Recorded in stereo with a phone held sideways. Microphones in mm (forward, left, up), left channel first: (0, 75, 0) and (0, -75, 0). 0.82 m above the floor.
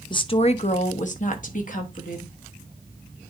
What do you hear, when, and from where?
0.1 s a woman speaking: 30° left (ahead or behind), 0.6 m; by 2.4 s 65° left (ahead or behind), 1.6 m